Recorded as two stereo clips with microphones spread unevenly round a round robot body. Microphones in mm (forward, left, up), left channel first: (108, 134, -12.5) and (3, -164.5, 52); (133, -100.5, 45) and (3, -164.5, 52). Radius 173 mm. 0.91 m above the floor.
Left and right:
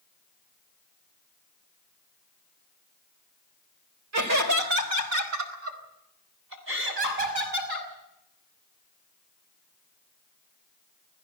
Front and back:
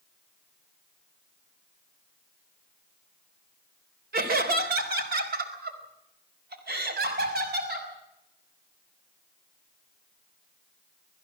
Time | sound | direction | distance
4.1 | laughter | 155° right | 3.5 m